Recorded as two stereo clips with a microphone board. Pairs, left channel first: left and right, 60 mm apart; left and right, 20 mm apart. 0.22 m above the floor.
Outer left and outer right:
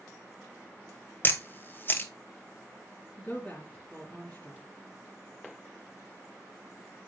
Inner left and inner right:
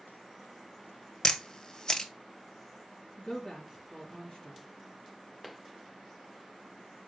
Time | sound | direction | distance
1.2 | a camera shutter | 30° left (ahead or behind) | 1.1 m
3.2 | a woman speaking | 35° left (ahead or behind) | 3 m